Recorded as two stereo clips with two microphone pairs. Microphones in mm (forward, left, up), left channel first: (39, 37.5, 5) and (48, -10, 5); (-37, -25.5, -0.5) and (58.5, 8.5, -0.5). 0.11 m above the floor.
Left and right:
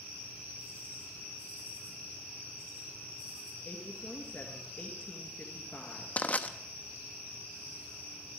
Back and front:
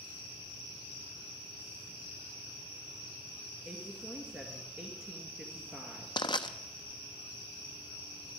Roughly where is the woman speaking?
Left.